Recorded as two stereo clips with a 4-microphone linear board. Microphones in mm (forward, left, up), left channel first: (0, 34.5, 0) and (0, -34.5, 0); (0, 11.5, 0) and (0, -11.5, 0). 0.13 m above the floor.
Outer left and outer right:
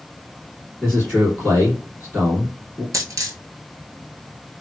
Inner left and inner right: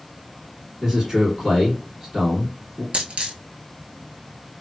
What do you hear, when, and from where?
0.8 s a man speaking: 15° right (ahead or behind), 1.6 m
2.9 s a dropped coin: 50° right (ahead or behind), 0.8 m